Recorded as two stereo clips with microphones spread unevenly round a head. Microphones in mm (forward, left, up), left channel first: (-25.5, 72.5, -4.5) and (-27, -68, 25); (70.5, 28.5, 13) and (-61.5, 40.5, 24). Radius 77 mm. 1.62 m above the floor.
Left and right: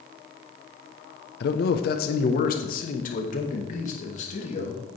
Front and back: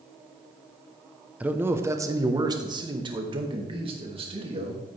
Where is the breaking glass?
No breaking glass in this recording.